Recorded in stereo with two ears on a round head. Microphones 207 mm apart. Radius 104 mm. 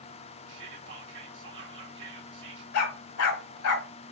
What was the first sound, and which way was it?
Whispering, 55° right (ahead or behind).